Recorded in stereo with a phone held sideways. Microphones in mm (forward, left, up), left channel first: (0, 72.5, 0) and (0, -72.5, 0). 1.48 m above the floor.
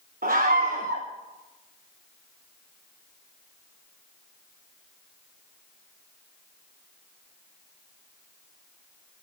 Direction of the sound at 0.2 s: 80° right.